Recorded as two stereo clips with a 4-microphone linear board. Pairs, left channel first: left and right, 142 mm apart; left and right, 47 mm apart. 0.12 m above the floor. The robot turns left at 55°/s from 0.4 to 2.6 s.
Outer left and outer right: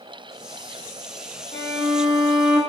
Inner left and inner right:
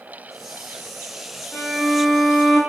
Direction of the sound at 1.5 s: 50° left.